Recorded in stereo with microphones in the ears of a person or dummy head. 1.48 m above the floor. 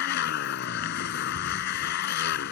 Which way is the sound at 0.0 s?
60° left (ahead or behind).